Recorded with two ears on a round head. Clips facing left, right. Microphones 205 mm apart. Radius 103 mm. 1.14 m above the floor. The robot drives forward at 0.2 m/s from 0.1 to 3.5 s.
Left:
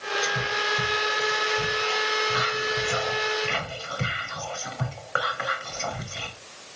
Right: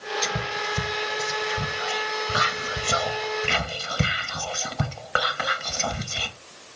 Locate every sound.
0.2 s whispering: 55° right (ahead or behind), 0.7 m; by 6.3 s 50° right (ahead or behind), 0.8 m